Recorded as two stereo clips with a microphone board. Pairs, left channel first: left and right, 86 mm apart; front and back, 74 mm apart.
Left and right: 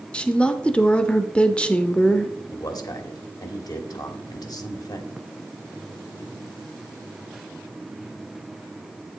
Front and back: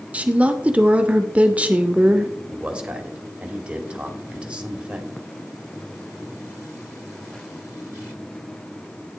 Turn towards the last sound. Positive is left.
turn(degrees=110)